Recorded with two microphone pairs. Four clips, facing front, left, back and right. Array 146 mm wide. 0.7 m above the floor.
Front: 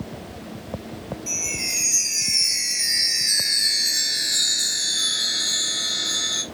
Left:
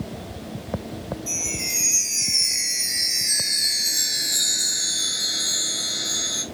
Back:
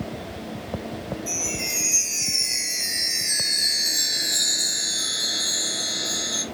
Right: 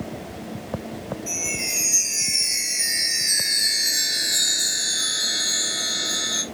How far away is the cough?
No cough in this recording.